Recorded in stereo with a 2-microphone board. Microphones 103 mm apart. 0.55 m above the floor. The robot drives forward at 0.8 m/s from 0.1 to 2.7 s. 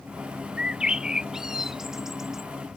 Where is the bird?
10° right (ahead or behind); by 2.5 s 5° right (ahead or behind).